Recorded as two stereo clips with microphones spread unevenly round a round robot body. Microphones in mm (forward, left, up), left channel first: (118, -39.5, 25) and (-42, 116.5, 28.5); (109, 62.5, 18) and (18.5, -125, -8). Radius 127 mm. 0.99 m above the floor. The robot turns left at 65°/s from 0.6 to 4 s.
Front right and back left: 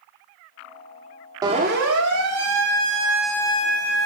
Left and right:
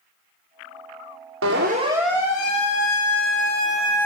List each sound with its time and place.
1.4 s a siren: 150° right, 3 m; by 4.1 s 20° right, 3.5 m